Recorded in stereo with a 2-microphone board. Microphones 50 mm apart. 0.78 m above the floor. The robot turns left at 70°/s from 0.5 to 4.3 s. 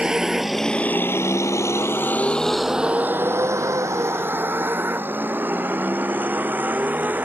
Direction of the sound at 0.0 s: 15° right (ahead or behind).